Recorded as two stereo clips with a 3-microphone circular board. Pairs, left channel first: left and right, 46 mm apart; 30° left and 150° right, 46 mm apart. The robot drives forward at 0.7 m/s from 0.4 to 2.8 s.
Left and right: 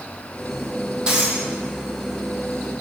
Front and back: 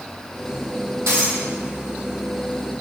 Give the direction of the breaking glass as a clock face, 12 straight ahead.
5 o'clock.